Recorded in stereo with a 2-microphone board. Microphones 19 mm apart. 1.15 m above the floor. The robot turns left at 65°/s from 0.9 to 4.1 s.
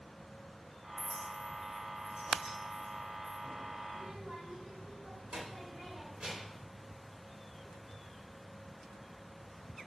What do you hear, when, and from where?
1.0 s a clink: 10° right (ahead or behind), 1.2 m
3.9 s a child speaking: 75° right (ahead or behind), 2.5 m